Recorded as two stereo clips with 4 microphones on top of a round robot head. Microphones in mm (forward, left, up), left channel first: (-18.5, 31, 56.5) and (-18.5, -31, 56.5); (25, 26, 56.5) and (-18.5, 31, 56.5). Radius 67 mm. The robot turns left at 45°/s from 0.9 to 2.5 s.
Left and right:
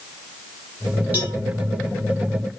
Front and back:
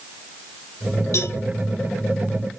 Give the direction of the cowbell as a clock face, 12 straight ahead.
1 o'clock.